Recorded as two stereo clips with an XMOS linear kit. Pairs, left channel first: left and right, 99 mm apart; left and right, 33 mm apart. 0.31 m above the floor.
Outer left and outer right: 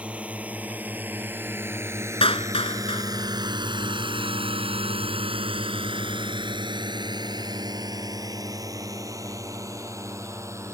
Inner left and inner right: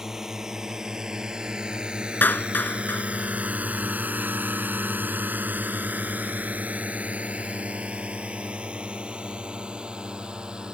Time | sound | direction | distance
0.0 | a drone | 15° right (ahead or behind) | ?
2.2 | a clap | 70° left (ahead or behind) | ?